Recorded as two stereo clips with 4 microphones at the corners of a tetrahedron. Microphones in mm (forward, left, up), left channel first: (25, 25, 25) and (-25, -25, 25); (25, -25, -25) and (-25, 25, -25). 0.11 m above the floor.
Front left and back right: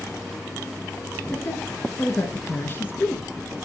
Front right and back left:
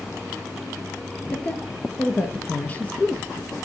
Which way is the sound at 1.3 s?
10° left.